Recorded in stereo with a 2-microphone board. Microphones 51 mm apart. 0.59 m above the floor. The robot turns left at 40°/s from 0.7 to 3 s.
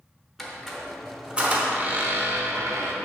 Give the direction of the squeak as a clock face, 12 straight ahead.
12 o'clock.